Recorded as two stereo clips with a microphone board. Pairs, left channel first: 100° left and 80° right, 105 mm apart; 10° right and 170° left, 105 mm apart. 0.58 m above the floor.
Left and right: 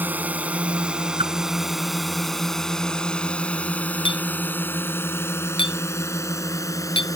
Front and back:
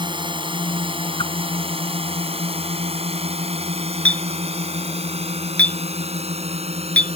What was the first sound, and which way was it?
A drone, 150° right.